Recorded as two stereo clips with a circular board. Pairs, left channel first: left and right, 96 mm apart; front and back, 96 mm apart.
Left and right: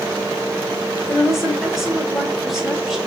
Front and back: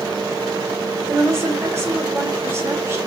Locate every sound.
1.0 s a woman speaking: 175° right, 0.9 m